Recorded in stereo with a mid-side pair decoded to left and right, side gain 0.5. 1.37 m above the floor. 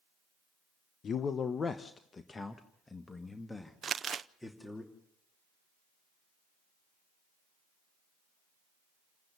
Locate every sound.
1.0 s a man speaking: 50° left, 1.0 m; by 4.8 s 10° left, 2.5 m
3.8 s crumpling: 45° right, 0.7 m